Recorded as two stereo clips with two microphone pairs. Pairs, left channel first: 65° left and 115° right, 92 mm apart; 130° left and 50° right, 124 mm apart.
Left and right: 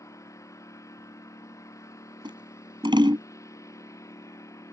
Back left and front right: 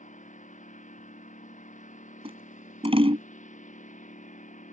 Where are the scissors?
85° right.